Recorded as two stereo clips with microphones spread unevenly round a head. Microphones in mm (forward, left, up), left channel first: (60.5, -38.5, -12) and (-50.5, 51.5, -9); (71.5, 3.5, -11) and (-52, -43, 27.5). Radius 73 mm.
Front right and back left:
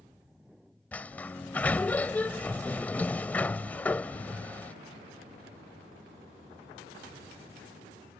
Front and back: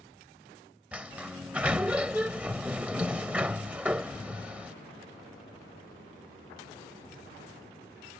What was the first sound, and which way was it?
A sliding door, 110° right.